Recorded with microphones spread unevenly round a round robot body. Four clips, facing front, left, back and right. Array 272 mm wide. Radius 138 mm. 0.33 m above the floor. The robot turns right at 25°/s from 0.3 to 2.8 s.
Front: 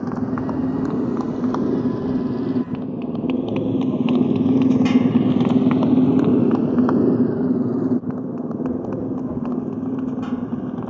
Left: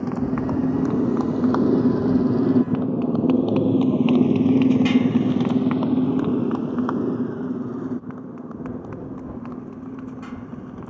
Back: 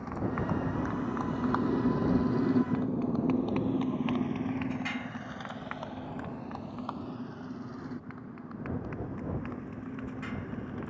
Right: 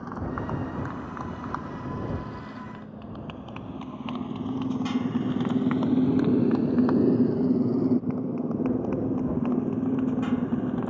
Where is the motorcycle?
40° left; by 10.9 s 35° right.